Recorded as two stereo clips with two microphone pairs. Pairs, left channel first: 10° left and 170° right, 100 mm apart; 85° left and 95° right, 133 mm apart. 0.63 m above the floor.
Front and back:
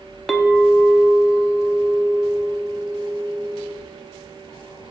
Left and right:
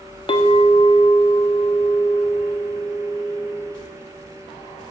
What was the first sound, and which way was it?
A clink, 90° left.